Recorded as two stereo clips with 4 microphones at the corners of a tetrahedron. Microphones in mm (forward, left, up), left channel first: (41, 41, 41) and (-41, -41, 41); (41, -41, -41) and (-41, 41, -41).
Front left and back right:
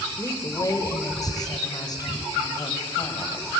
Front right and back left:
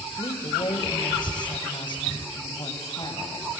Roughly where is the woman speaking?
Ahead.